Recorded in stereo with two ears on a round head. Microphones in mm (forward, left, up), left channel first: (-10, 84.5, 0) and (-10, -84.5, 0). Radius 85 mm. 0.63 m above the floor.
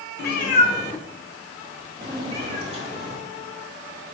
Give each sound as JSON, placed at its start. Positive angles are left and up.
{"t": 0.2, "sound": "a cat meowing", "side_deg": 60, "distance_m": 0.5}